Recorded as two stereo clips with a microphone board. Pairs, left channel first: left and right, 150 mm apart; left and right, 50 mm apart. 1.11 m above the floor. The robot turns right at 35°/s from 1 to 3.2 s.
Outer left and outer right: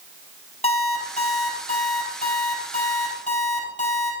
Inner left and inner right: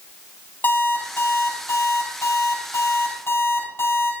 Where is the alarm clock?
45° left, 4 m; by 4.1 s 120° left, 4 m.